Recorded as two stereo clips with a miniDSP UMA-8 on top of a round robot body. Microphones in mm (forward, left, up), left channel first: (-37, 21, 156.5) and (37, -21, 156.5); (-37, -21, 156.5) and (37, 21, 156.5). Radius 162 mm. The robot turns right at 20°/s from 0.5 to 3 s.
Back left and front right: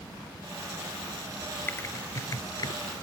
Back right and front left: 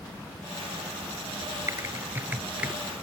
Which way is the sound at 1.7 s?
85° left.